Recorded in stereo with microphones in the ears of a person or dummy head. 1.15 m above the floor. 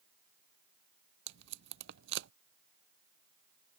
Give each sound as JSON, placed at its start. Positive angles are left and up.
{"t": 1.3, "sound": "tape being pulled", "side_deg": -65}